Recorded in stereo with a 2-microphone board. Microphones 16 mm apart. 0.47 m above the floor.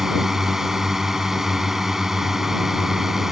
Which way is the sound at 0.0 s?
20° right (ahead or behind).